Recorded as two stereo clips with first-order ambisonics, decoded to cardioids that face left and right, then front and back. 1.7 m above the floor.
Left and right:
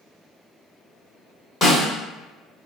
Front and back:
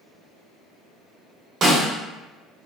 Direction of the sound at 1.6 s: 140° left.